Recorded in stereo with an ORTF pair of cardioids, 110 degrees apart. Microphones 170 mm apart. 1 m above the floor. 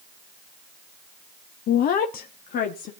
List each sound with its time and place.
1.7 s a woman speaking: 60° left, 0.7 m; by 2.9 s 65° left, 1.9 m